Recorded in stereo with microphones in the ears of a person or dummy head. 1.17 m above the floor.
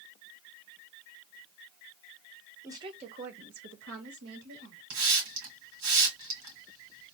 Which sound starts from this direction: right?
A hiss, at 4.9 s.